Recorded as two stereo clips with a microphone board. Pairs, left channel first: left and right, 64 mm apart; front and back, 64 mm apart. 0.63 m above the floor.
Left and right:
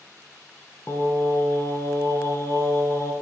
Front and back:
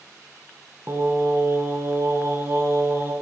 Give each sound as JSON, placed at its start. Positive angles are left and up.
{"t": 0.9, "sound": "singing", "azimuth_deg": 135, "distance_m": 1.2}